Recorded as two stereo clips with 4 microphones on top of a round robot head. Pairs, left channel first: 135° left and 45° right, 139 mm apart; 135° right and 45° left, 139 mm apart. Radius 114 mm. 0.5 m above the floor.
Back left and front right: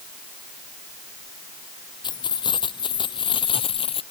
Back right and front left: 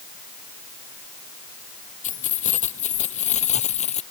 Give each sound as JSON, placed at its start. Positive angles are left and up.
{"t": 2.0, "sound": "keys jangling", "azimuth_deg": -165}